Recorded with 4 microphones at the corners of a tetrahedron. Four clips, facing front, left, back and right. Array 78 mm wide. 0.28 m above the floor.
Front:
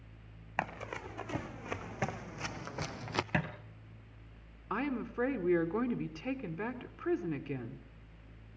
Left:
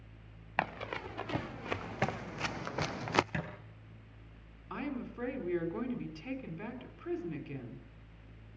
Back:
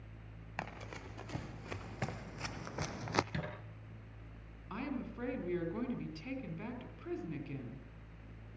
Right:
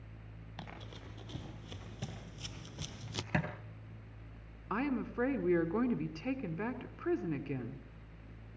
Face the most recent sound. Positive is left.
turn(degrees=-40)